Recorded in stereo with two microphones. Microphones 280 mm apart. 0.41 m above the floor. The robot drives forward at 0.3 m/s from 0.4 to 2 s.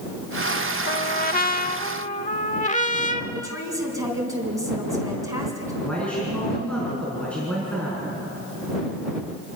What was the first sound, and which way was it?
A trumpet, 35° left (ahead or behind).